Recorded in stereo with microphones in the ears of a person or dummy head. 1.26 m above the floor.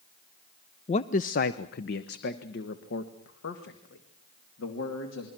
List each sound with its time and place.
0.9 s a man speaking: 35° left (ahead or behind), 0.5 m; by 5.3 s 70° left (ahead or behind), 2.5 m